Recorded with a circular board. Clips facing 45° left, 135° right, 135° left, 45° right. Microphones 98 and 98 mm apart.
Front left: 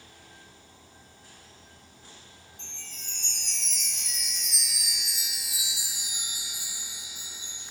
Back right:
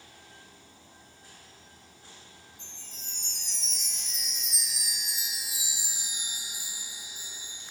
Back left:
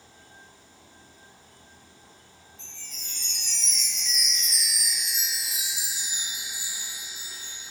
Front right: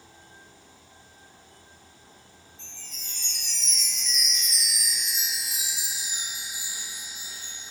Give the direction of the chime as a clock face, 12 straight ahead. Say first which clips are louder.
Front left 2 dB, even; 10 o'clock.